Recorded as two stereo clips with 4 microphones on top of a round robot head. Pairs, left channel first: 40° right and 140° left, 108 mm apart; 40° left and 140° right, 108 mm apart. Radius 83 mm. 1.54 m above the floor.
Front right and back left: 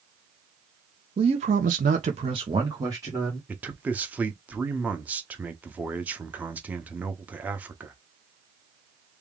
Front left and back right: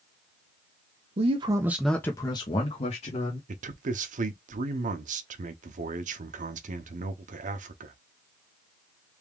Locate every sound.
1.2 s a man speaking: 175° right, 0.8 m; by 3.4 s 70° left, 1.6 m
3.5 s a man speaking: 145° right, 0.8 m